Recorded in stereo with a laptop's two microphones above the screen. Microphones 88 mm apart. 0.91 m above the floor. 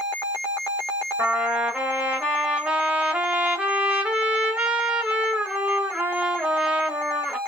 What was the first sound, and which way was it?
A trumpet, 15° right (ahead or behind).